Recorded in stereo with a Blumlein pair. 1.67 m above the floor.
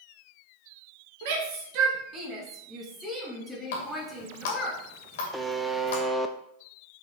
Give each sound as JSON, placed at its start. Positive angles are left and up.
{"t": 1.2, "sound": "a shout", "azimuth_deg": -50, "distance_m": 2.0}
{"t": 3.7, "sound": "a running tap", "azimuth_deg": 55, "distance_m": 2.0}
{"t": 5.3, "sound": "a buzzer", "azimuth_deg": -10, "distance_m": 0.7}